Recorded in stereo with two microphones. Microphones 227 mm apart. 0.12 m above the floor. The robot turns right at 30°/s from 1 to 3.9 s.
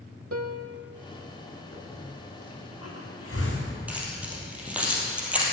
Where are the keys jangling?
5° right (ahead or behind), 2.5 m.